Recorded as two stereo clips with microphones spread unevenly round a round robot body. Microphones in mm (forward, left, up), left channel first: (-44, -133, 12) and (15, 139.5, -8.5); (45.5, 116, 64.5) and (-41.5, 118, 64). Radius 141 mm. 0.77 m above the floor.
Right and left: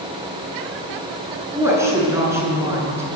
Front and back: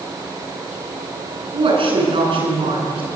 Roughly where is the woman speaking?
Behind.